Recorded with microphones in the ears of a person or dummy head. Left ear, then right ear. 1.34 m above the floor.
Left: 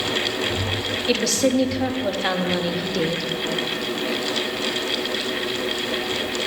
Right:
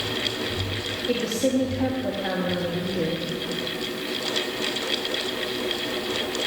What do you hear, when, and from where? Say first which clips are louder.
1.1 s a woman speaking: left 4 dB; 40° left (ahead or behind), 0.9 m